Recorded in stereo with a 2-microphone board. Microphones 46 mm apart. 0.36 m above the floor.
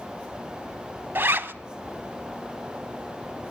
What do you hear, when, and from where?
1.1 s a zipper: 50° right (ahead or behind), 0.5 m